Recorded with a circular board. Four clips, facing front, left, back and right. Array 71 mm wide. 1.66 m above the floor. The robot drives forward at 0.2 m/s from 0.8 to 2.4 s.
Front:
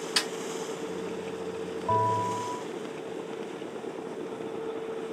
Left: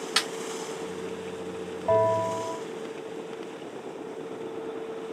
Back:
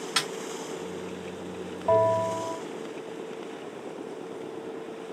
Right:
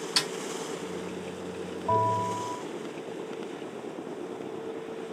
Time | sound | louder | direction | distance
0.2 | a snare drum | left 4 dB, back 2 dB | 120° left | 2 m
1.9 | a bell | left 3 dB, back 4 dB | 145° left | 2.5 m